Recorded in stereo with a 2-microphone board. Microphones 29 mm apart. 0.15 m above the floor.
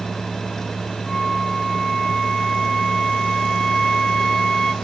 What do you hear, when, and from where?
1.1 s a flute: 25° left (ahead or behind), 1.4 m